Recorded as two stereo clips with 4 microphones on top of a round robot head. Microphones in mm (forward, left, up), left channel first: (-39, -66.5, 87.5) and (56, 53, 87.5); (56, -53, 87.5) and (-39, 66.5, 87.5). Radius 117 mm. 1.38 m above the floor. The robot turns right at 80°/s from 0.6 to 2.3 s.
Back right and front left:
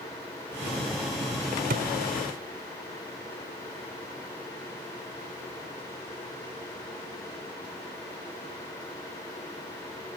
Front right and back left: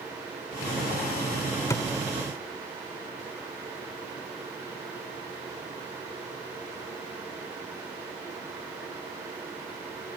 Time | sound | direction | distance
1.7 | a thud | 20° left | ?